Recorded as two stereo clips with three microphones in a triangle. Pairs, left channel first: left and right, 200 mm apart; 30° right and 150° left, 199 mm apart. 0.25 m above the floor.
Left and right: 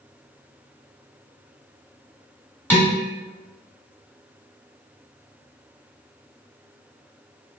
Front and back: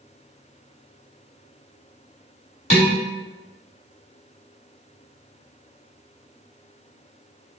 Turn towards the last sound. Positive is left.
turn(degrees=10)